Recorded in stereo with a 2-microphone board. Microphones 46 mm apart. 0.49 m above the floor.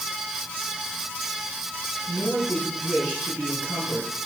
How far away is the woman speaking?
About 7 m.